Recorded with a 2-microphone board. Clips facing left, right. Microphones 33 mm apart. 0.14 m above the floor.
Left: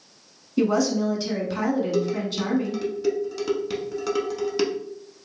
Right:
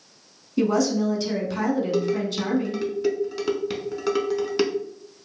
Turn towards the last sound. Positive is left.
turn(degrees=-15)  # may be behind; listen again after turning